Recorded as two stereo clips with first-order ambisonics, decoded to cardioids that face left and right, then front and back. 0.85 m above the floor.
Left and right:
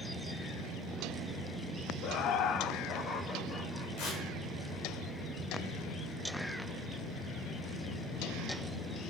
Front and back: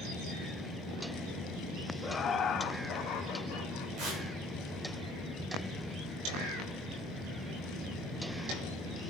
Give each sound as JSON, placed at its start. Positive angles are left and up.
{"t": 2.0, "sound": "laughter", "azimuth_deg": 75, "distance_m": 0.7}
{"t": 4.0, "sound": "tearing paper", "azimuth_deg": 135, "distance_m": 5.5}